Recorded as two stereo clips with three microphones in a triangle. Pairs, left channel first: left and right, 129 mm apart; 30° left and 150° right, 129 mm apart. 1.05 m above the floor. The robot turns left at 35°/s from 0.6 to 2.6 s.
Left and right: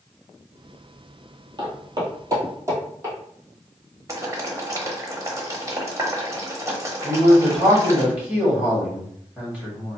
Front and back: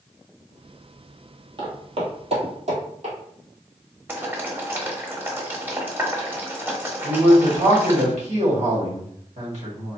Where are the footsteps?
125° right, 1.3 m; by 3.1 s 155° right, 2.0 m.